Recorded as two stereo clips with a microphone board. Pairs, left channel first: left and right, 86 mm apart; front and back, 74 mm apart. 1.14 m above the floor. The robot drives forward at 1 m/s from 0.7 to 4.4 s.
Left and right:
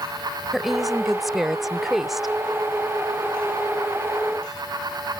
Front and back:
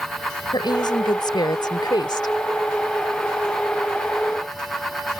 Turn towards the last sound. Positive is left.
turn(degrees=-15)